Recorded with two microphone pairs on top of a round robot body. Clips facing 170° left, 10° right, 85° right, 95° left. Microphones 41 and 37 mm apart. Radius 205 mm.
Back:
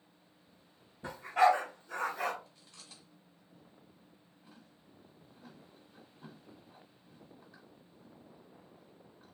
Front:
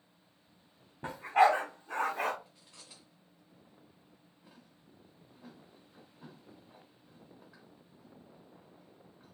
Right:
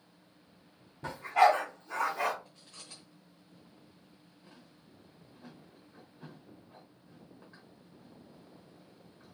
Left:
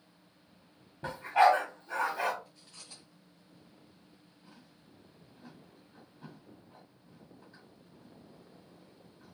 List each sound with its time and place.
1.0 s a dog barking: 25° left, 1.2 m
2.5 s chewing: 20° right, 0.8 m